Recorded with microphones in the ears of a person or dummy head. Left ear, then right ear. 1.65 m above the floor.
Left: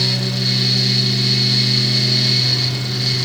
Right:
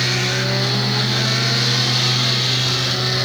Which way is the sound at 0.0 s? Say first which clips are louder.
Even; 60° left (ahead or behind).